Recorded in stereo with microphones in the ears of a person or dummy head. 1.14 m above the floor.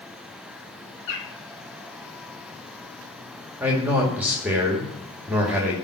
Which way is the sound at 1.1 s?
65° left (ahead or behind).